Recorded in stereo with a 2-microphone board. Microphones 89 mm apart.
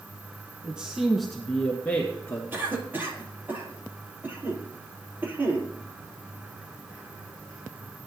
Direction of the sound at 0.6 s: 15° right (ahead or behind).